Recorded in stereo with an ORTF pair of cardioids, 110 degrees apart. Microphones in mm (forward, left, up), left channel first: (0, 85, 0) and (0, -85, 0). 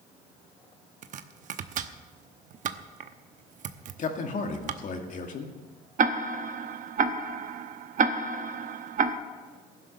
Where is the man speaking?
50° left, 2 m.